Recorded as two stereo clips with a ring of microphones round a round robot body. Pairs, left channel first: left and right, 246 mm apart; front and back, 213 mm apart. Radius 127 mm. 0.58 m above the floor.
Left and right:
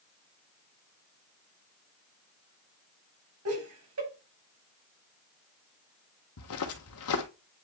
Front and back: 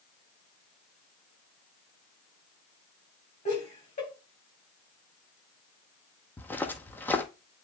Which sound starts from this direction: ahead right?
Laughter, at 3.5 s.